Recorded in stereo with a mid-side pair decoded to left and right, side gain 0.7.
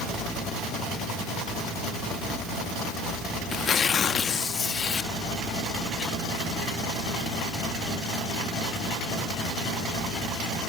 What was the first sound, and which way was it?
Tearing paper, 35° left.